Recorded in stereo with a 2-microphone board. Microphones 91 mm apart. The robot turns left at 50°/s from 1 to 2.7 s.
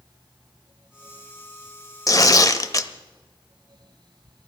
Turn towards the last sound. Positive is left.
turn(degrees=70)